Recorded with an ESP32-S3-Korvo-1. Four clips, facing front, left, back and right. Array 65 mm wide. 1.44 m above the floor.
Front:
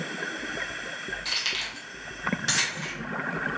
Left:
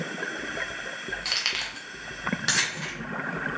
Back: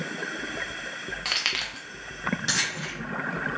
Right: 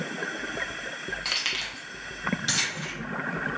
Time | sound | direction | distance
1.2 | keys jangling | straight behind | 0.9 m